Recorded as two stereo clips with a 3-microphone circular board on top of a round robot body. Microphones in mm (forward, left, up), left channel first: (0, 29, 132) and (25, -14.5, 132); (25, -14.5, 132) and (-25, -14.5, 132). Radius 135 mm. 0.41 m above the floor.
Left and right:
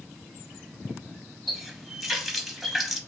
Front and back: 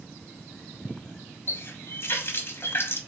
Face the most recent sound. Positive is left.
turn(degrees=25)